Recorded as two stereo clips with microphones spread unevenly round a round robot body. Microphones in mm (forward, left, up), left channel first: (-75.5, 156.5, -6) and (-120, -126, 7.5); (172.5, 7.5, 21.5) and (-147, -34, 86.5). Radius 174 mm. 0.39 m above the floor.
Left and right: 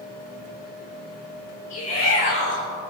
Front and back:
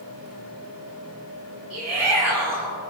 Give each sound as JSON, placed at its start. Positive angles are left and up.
{"t": 1.7, "sound": "a shout", "azimuth_deg": 95, "distance_m": 7.0}